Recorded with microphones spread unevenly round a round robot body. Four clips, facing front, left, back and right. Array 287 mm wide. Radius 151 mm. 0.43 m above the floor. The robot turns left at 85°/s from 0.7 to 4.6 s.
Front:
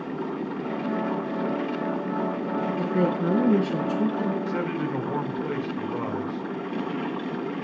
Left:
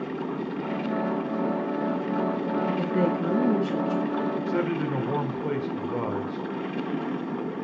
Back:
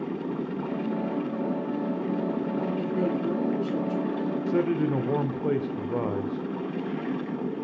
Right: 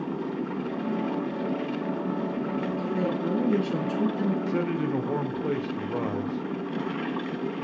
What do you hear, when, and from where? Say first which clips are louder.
2.8 s a woman speaking: left 3 dB, front 5 dB; 50° left, 4.5 m; by 4.4 s 85° right, 4.5 m
4.5 s a man speaking: left 1 dB, back 3 dB; 165° right, 1.5 m; by 6.5 s straight behind, 1.5 m